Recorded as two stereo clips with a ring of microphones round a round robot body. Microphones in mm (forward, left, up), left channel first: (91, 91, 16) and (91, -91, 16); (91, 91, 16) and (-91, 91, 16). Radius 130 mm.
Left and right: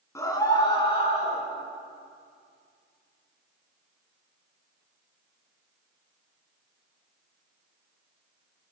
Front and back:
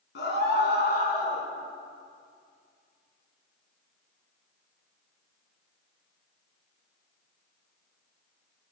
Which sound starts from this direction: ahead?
A scream, at 0.1 s.